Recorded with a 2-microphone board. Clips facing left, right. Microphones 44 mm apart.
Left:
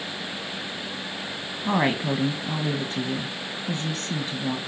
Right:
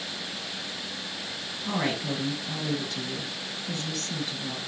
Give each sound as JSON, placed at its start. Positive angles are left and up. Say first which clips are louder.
{"t": 1.6, "sound": "a woman speaking", "louder": "left 6 dB", "side_deg": 35, "distance_m": 1.3}